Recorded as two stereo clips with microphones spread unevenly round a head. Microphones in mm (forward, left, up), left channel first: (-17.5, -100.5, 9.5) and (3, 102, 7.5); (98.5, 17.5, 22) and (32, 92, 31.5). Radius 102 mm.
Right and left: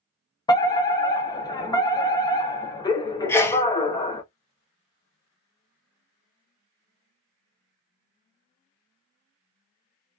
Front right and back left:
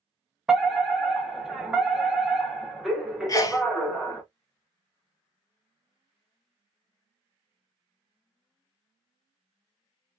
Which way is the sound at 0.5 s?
135° right.